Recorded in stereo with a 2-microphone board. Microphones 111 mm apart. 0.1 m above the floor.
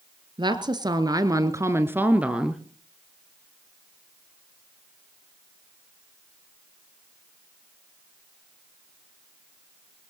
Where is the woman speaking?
45° right (ahead or behind), 1.5 m; by 2.6 s 5° right (ahead or behind), 1.2 m.